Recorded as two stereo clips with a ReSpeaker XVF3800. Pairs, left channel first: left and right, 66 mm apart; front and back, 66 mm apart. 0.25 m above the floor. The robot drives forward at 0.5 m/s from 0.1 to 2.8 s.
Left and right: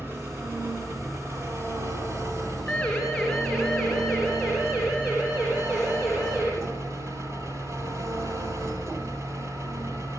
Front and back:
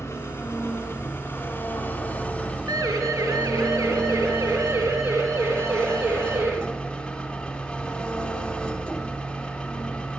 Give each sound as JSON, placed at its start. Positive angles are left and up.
{"t": 0.0, "sound": "an engine running", "azimuth_deg": -40, "distance_m": 2.5}
{"t": 2.7, "sound": "a siren", "azimuth_deg": 175, "distance_m": 3.0}